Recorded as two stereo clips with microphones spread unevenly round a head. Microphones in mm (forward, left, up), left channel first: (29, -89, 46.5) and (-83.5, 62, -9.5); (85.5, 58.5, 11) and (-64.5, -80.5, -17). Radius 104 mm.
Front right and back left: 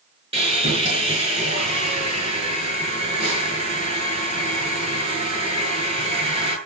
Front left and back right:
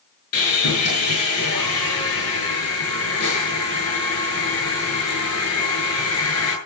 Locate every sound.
0.3 s sawing: 60° left, 8.5 m